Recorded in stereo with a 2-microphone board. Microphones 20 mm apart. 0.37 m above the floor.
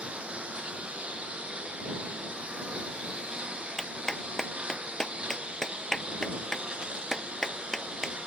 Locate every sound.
0.0 s a lawn mower: 75° right (ahead or behind); by 8.3 s 60° right (ahead or behind)
3.8 s a clap: 25° left (ahead or behind)